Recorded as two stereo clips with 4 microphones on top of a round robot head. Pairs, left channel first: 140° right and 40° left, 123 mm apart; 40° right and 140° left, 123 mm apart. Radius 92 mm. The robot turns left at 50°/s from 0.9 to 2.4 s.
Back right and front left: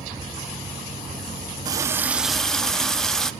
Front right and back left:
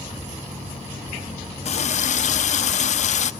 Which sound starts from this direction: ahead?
A running tap, at 1.6 s.